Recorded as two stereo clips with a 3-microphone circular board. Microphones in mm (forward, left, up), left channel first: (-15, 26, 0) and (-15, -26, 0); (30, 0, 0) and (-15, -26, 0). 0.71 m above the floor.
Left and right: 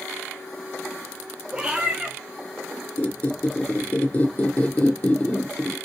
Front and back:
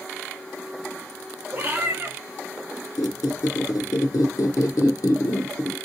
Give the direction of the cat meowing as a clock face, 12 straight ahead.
5 o'clock.